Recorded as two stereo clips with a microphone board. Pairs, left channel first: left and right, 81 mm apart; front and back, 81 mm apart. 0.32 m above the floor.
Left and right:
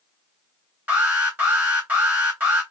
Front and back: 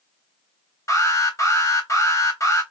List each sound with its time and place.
0.9 s an alarm: 25° right, 2.5 m